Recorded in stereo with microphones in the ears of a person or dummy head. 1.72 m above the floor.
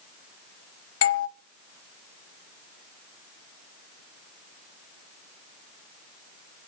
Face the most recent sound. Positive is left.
turn(degrees=70)  # may be behind; listen again after turning